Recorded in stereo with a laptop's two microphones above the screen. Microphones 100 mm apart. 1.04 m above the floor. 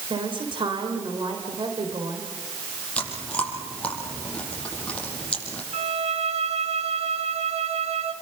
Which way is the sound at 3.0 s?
10° left (ahead or behind).